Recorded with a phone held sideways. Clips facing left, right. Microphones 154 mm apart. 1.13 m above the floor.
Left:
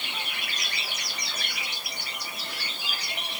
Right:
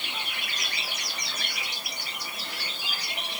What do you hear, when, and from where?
Only background noise.